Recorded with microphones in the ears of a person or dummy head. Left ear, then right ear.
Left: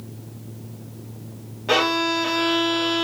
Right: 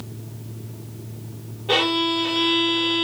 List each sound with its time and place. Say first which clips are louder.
1.7 s a violin: even; 70° left (ahead or behind), 0.7 m